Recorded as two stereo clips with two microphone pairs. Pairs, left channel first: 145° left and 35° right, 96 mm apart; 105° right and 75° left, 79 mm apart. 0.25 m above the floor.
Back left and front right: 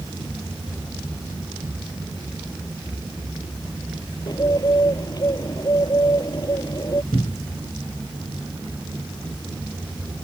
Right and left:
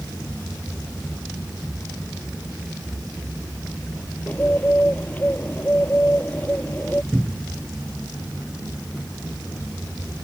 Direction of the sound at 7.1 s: 155° left.